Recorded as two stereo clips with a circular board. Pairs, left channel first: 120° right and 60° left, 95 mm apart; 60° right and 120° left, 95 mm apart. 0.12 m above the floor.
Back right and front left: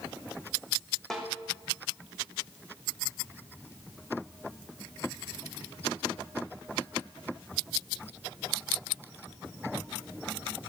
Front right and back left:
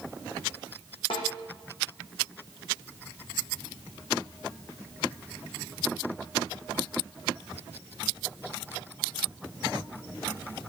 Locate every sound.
1.1 s a snare drum: 35° right, 2.5 m